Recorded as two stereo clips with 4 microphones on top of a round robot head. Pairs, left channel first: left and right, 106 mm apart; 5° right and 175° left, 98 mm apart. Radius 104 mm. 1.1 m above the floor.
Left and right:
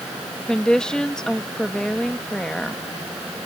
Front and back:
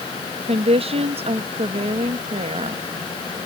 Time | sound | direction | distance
0.5 | a woman speaking | 175° left | ?